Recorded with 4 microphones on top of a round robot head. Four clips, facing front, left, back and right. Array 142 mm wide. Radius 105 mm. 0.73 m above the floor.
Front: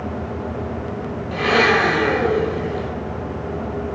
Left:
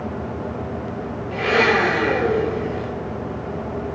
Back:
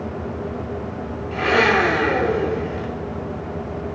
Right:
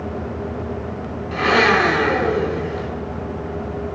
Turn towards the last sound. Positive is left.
turn(degrees=-85)